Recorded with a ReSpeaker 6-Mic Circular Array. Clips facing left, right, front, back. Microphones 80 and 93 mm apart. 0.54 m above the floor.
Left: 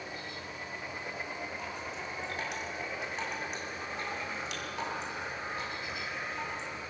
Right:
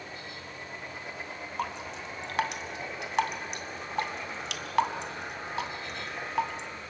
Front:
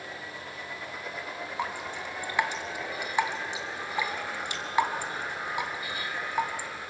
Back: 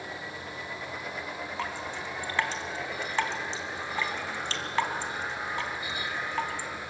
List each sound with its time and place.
1.6 s dripping: 75° right, 2 m